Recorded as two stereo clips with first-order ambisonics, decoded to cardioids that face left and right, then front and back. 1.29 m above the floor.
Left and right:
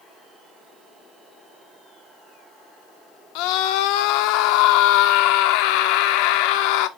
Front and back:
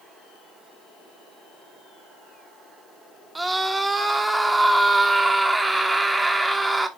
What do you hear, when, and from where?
3.4 s a scream: 95° left, 1.0 m